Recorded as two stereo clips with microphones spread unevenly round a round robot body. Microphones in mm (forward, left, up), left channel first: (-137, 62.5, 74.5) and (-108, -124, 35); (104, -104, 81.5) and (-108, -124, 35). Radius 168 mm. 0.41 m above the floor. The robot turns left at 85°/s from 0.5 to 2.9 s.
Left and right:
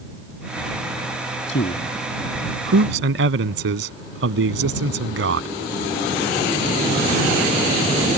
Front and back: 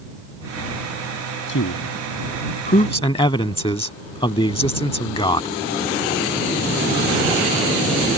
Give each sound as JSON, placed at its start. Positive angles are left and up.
{"t": 1.5, "sound": "a man speaking", "azimuth_deg": 55}